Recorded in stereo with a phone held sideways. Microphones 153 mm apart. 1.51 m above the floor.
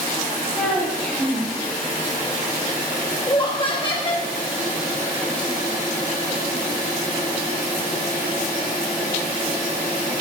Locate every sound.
0.6 s a child speaking: 5° left (ahead or behind), 5 m
3.3 s laughter: 35° left (ahead or behind), 1.1 m